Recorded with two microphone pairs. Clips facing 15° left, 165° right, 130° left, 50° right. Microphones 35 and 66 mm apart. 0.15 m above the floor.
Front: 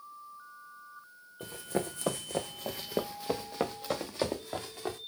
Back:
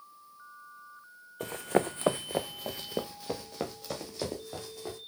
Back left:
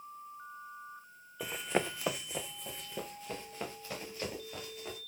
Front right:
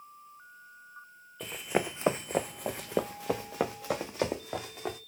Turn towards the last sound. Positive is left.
turn(degrees=-40)